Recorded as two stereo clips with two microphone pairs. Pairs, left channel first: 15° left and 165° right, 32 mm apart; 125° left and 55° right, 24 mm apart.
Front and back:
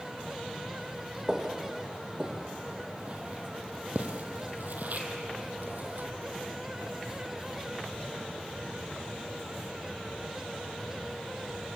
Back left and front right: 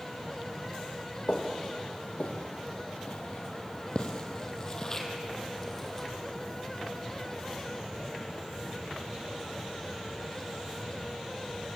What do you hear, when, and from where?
1.3 s footsteps: 125° left, 3.5 m; by 6.1 s 150° right, 3.5 m